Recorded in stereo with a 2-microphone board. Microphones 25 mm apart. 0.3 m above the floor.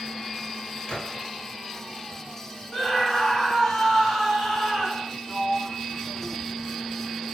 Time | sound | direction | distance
0.9 | a gunshot | 35° left (ahead or behind) | 2.5 m
2.7 | a scream | 10° left (ahead or behind) | 2 m
5.3 | a sliding door | 45° left (ahead or behind) | 1.5 m